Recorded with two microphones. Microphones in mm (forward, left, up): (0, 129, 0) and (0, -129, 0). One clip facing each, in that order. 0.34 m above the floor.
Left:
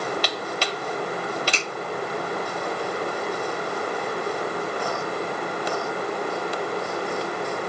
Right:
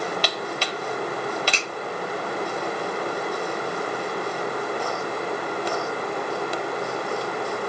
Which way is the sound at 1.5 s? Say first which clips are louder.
Left 1 dB; 60° right (ahead or behind).